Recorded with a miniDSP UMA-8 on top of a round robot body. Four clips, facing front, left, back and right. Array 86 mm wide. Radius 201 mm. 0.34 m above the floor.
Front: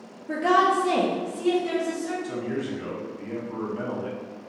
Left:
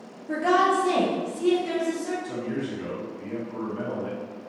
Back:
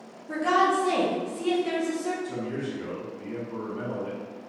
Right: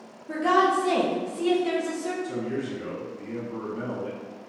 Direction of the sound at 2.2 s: 10° left.